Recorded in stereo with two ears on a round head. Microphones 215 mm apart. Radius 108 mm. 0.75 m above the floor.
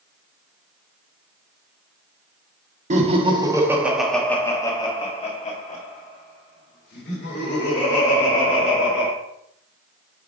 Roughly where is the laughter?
Right.